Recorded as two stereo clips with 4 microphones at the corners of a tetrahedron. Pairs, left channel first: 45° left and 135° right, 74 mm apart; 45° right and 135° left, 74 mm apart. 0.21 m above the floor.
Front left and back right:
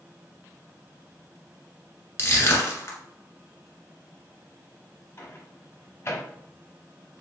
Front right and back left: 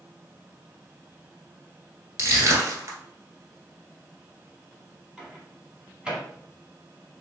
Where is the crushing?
95° left, 1.2 m.